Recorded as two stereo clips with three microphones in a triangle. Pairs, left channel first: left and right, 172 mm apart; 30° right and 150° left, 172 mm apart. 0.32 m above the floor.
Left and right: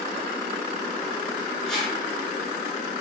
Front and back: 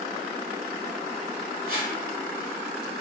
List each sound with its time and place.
1.7 s a whoosh: 175° left, 1.3 m